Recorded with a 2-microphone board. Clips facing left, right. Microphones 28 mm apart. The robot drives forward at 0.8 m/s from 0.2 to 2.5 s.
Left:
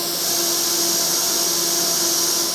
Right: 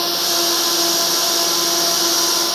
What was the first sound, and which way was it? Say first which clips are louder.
A drone: right 5 dB; 35° right (ahead or behind).